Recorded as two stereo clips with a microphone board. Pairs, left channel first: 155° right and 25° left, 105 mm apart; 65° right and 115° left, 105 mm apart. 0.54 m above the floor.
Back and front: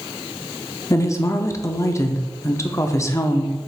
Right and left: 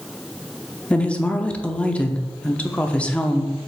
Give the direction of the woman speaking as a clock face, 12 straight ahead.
5 o'clock.